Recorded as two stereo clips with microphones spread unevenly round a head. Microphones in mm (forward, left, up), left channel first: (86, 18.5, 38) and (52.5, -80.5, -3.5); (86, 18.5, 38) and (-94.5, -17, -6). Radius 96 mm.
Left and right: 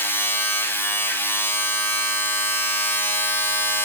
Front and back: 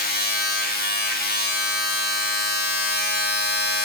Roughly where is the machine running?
Ahead.